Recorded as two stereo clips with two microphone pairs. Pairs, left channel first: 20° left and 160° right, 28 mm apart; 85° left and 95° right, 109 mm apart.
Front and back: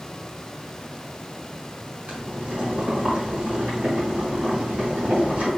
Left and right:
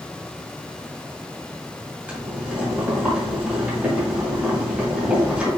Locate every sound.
2.1 s boiling: 170° right, 2 m